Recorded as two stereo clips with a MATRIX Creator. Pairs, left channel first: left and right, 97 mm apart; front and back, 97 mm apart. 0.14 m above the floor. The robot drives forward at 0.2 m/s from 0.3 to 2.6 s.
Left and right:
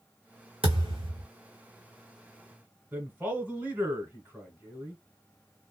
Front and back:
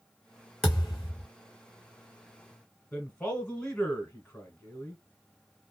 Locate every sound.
0.6 s a thud: 85° right, 1.4 m; by 1.3 s 90° right, 1.4 m
2.9 s a man speaking: 60° right, 1.3 m